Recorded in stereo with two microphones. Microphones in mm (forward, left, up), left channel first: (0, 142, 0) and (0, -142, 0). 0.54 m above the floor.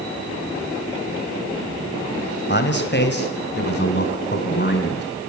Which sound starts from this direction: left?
A man speaking, at 2.5 s.